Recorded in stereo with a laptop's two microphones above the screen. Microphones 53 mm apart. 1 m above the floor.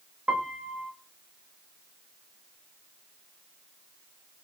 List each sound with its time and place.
0.3 s a piano: 20° right (ahead or behind), 1.3 m